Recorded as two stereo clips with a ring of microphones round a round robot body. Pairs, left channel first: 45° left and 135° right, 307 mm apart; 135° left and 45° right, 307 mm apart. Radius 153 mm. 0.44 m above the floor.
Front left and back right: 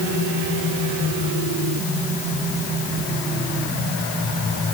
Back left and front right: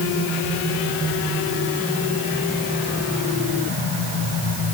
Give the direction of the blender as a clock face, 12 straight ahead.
I don't hear a blender.